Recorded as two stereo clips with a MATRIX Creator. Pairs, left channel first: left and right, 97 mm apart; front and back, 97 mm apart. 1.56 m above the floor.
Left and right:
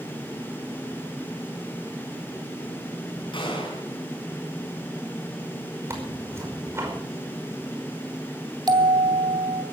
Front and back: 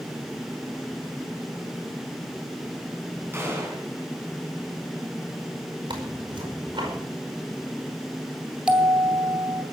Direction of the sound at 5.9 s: 150° right.